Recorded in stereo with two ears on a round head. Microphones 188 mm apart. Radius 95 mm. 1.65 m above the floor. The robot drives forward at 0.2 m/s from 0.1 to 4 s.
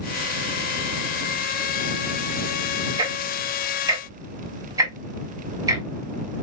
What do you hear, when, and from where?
3.0 s ticking: 20° right (ahead or behind), 1.3 m; by 5.8 s 15° right (ahead or behind), 1.5 m